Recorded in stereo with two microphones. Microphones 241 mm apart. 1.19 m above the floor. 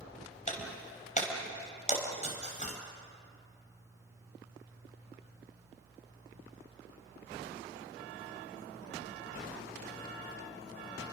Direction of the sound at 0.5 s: 30° left (ahead or behind).